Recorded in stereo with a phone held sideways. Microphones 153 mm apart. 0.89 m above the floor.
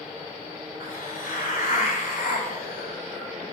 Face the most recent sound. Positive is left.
turn(degrees=70)  # may be behind; listen again after turning